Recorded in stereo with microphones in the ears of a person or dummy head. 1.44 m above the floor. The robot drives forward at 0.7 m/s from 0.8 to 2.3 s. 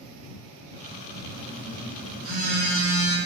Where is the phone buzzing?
35° right (ahead or behind), 1.7 m; by 3.2 s 50° right (ahead or behind), 1.2 m.